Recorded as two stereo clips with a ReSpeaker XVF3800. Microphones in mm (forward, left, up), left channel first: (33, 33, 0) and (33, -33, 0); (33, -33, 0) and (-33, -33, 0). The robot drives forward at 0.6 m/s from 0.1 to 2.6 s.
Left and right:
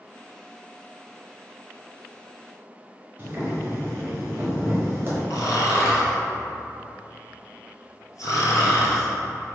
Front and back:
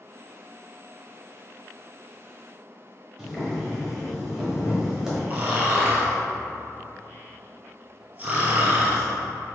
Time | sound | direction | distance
3.2 | boiling | 100° right | 1.4 m
5.3 | snoring | 120° left | 1.0 m